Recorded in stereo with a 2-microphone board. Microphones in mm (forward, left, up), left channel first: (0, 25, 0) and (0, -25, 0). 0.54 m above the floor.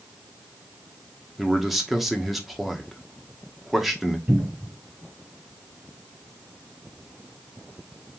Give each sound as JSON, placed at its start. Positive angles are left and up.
{"t": 1.4, "sound": "a man speaking", "side_deg": 0, "distance_m": 1.0}
{"t": 4.3, "sound": "a cupboard door", "side_deg": -35, "distance_m": 3.5}